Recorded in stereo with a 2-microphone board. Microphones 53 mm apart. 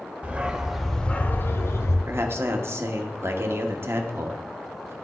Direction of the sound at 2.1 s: 55° right (ahead or behind).